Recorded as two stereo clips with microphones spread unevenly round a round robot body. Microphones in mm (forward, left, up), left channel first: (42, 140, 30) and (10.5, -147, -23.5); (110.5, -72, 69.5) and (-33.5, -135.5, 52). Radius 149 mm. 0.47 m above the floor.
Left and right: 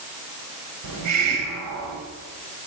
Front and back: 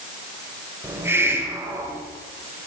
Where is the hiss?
85° right, 2 m.